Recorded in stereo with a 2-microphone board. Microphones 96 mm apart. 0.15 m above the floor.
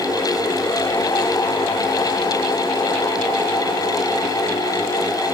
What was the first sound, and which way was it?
Only background noise.